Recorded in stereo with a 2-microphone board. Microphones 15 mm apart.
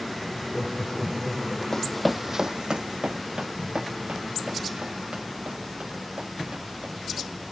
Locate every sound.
0.3 s laughter: 30° left (ahead or behind), 5.5 m
1.7 s running footsteps: 35° left (ahead or behind), 0.6 m; by 7.3 s 90° right, 6 m